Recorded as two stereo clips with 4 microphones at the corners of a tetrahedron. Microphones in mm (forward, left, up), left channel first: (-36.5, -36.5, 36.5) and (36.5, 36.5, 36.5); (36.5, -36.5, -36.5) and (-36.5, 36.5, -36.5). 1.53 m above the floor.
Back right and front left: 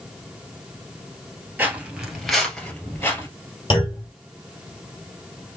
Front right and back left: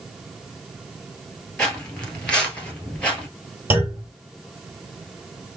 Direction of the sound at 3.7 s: 155° right.